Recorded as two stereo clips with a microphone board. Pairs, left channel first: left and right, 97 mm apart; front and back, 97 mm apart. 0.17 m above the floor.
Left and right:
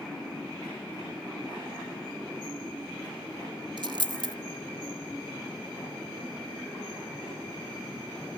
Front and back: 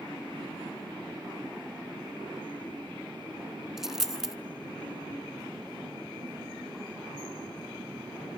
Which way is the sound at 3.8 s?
95° right.